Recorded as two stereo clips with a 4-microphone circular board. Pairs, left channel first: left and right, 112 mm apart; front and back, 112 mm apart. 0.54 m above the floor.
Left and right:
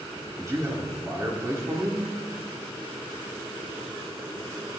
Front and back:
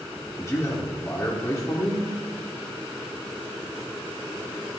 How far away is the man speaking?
About 1.6 m.